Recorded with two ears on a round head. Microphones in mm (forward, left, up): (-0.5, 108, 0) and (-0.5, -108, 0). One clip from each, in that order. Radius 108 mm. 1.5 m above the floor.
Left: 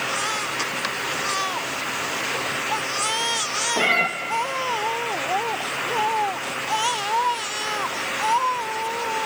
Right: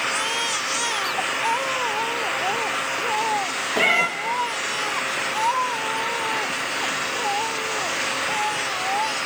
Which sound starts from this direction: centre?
A cat meowing, at 3.8 s.